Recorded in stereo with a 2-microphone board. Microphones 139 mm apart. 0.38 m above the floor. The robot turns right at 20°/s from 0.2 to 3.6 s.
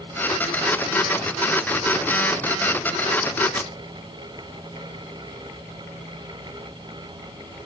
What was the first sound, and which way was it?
A crack, 45° left (ahead or behind).